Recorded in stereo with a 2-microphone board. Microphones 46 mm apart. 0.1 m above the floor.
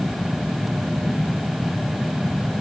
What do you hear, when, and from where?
Only background noise.